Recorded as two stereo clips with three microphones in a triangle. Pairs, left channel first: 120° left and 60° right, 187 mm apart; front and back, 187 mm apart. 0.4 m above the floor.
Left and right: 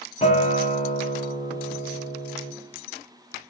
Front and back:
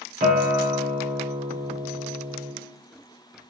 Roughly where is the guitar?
Behind left.